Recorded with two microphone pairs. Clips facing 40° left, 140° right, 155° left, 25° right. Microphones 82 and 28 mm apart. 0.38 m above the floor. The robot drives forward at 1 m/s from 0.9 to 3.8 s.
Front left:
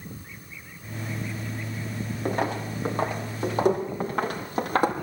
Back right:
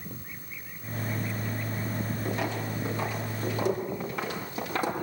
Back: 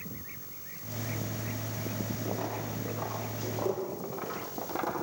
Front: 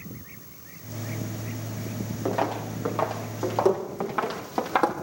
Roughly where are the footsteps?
Ahead.